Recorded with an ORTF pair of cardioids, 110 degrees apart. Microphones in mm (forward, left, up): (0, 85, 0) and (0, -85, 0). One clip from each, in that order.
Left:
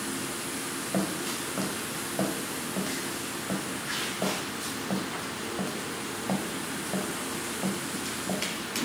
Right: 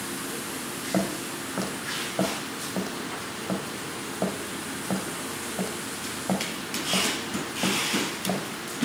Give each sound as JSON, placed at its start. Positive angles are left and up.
{"t": 0.9, "sound": "footsteps", "azimuth_deg": -20, "distance_m": 3.5}